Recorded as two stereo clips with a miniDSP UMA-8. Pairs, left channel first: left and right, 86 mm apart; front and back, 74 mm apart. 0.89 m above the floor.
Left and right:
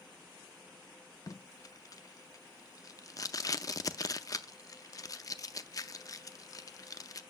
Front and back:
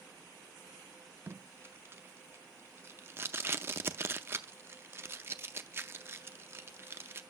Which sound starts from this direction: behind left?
Tape being pulled, at 1.3 s.